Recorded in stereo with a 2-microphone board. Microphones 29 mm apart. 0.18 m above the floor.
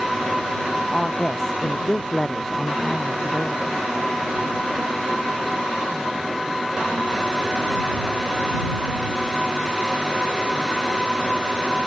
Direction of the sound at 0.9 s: 20° left (ahead or behind).